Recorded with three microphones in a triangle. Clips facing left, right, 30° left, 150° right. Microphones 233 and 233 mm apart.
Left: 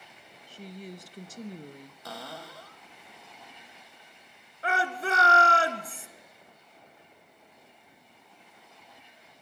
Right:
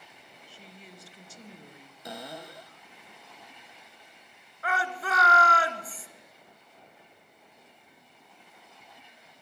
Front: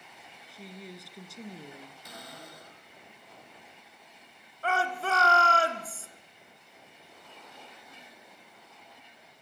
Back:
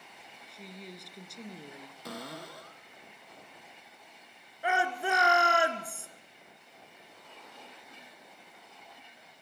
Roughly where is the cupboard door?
Behind.